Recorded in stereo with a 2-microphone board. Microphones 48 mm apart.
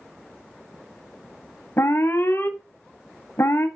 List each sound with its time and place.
1.8 s an alarm: 60° left (ahead or behind), 1.3 m